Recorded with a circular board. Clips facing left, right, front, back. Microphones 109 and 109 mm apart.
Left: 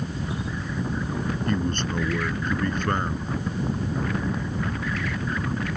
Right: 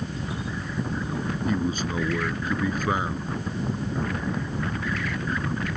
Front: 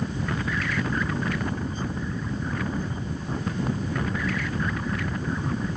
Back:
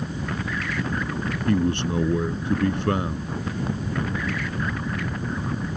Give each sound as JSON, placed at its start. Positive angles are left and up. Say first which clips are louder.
{"t": 1.5, "sound": "a man speaking", "louder": "right 1 dB, back 8 dB", "azimuth_deg": -175}